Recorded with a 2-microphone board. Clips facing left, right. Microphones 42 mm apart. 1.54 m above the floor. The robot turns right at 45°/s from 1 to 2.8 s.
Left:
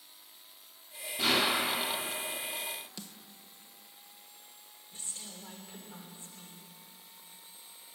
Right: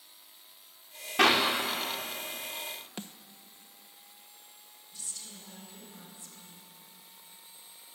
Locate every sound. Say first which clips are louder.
1.2 s a clap: right 5 dB; 85° right, 4.5 m; by 1.4 s 70° right (ahead or behind), 4.5 m
3.0 s a snare drum: right 5 dB; 40° right (ahead or behind), 1.0 m
4.9 s a woman speaking: left 1 dB; 35° left (ahead or behind), 6.5 m